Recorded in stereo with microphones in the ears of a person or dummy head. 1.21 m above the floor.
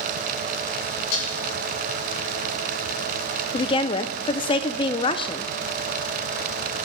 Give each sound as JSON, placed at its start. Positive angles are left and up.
{"t": 1.1, "sound": "dishes clattering", "side_deg": 65, "distance_m": 6.5}
{"t": 3.5, "sound": "a woman speaking", "side_deg": 25, "distance_m": 0.6}